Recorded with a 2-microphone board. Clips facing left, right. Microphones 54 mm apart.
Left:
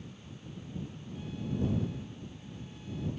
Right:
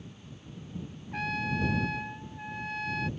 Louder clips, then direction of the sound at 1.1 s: Right 7 dB; 75° right (ahead or behind).